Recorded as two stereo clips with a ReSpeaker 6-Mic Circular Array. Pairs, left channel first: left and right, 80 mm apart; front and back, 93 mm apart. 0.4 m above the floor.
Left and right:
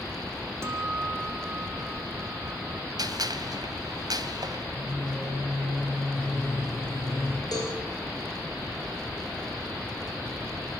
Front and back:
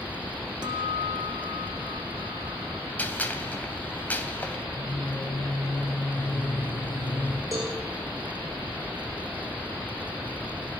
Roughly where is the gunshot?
Right.